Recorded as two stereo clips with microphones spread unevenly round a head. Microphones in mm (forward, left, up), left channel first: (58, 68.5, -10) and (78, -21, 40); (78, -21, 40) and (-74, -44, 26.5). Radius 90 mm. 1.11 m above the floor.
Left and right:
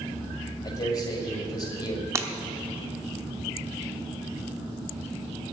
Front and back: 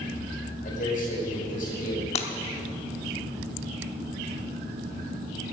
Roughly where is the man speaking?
Ahead left.